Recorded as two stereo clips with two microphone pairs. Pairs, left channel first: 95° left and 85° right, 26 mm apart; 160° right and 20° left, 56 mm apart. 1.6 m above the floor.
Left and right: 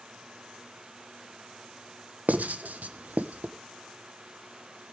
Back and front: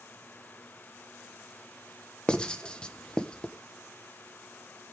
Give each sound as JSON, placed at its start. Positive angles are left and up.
{"t": 2.3, "sound": "writing", "azimuth_deg": -90, "distance_m": 1.4}